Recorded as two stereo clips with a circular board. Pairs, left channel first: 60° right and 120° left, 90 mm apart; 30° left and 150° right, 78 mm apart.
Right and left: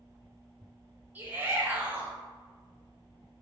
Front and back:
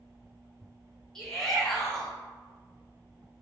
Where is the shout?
105° left, 1.0 m.